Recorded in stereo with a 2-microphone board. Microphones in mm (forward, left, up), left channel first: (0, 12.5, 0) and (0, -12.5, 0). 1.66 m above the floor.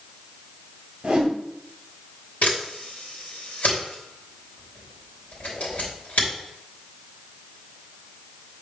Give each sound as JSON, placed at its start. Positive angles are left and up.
{"t": 1.0, "sound": "a whoosh", "side_deg": -35, "distance_m": 1.9}
{"t": 2.4, "sound": "a camera shutter", "side_deg": 75, "distance_m": 3.0}